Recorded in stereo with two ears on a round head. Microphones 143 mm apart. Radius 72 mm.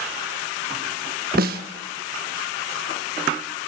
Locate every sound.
1.4 s a snare drum: 60° right (ahead or behind), 1.3 m